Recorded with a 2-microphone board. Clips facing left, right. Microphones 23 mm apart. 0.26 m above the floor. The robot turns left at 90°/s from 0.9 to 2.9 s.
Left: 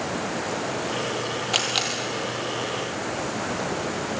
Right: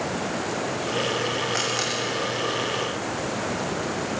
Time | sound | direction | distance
1.5 | a camera shutter | 70° left (ahead or behind) | 4.5 m